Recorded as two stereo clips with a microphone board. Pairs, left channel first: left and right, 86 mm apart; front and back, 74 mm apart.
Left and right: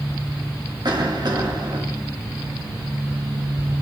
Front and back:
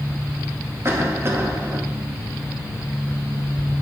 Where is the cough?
125° right, 2 m.